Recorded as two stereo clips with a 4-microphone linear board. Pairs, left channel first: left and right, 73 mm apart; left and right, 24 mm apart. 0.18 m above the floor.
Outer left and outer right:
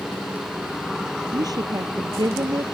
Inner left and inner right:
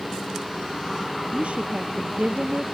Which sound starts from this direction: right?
A woman speaking, at 1.3 s.